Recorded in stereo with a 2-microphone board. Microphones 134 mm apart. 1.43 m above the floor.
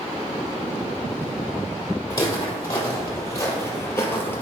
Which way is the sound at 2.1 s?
25° left (ahead or behind).